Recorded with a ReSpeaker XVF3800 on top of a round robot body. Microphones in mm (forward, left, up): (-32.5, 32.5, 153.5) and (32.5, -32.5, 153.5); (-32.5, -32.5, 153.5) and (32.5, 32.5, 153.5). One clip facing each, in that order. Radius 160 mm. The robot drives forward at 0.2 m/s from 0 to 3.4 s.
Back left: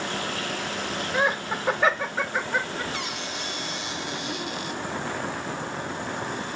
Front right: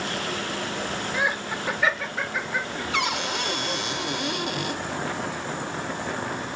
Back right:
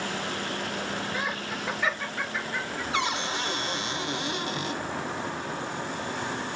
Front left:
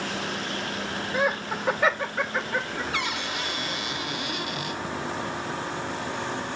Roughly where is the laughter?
Left.